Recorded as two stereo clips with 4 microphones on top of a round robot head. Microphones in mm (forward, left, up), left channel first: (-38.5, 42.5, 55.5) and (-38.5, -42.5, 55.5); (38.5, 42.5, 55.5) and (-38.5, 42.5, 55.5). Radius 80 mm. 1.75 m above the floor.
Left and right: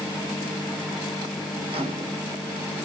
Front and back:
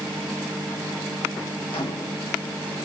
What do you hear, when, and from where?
1.7 s a microwave: 50° right, 1.0 m